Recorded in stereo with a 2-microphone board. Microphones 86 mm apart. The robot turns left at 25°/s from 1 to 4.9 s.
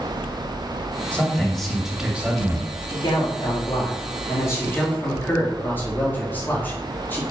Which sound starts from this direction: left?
A man speaking, at 2.9 s.